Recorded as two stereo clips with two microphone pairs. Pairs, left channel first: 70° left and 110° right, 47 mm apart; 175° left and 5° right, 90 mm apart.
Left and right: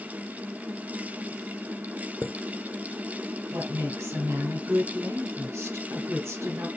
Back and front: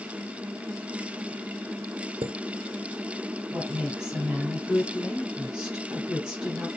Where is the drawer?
I don't hear a drawer.